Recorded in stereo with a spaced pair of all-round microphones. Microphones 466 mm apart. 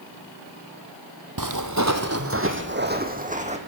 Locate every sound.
1.4 s footsteps: 45° right (ahead or behind), 1.8 m; by 3.6 s 15° right (ahead or behind), 2.5 m